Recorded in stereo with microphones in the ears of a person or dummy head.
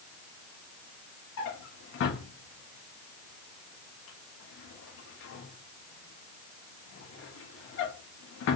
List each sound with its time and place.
1.4 s a drawer: 60° left (ahead or behind), 1.1 m